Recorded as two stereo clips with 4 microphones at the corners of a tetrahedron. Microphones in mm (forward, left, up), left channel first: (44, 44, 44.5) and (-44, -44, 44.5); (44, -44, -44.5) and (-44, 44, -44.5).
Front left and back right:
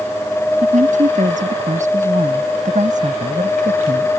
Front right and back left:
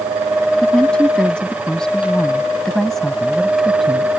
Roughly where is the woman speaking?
Behind right.